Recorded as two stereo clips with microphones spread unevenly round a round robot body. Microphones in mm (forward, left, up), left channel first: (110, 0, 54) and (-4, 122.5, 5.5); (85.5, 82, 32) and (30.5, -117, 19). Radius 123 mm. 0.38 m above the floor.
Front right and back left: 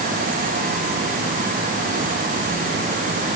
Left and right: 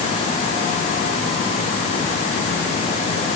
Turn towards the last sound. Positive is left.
No sound to turn to.